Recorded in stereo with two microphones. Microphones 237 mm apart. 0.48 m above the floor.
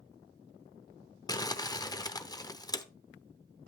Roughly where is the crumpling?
Centre.